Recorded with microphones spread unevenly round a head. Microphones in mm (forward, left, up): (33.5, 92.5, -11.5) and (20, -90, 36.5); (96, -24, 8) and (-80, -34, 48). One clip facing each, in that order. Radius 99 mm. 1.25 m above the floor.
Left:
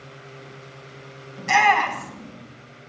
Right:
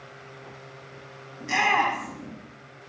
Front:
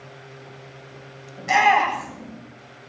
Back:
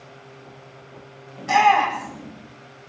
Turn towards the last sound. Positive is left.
turn(degrees=80)